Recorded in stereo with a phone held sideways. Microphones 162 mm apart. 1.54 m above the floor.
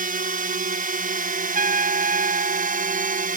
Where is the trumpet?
65° right (ahead or behind).